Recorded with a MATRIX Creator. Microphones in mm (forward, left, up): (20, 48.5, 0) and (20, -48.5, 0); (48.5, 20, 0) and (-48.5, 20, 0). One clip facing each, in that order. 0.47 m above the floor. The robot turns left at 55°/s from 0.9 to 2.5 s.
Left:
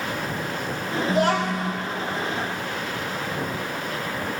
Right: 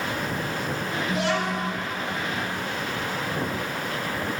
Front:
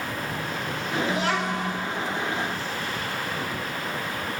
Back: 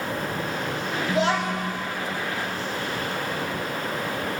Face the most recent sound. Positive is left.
turn(degrees=60)